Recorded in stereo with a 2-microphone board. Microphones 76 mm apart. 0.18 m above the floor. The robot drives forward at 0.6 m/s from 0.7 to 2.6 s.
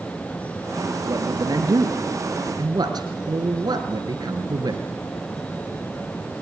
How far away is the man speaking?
About 3 m.